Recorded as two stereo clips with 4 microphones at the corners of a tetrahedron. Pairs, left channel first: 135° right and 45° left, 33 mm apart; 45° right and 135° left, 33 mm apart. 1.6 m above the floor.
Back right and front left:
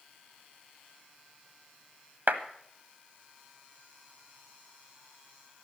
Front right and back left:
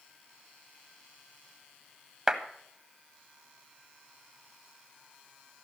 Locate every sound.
2.3 s a clap: 65° left, 1.2 m